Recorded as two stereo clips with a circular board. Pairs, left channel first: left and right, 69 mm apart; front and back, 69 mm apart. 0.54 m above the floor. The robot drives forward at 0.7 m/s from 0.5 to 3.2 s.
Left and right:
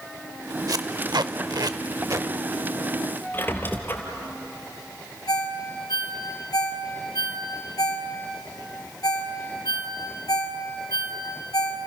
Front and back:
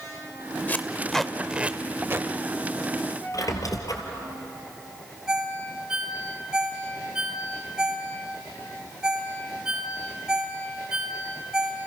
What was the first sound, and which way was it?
Tape being pulled, 60° right.